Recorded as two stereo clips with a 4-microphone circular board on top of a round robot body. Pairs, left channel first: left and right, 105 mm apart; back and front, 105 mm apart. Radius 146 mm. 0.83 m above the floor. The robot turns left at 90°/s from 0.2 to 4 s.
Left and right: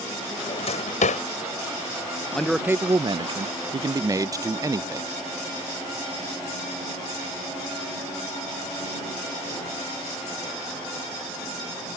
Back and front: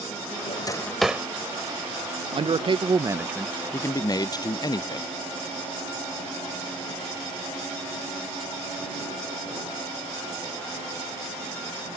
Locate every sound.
0.5 s a drawer: 140° left; by 1.2 s 75° left
2.3 s a man speaking: 15° left; by 5.1 s 140° right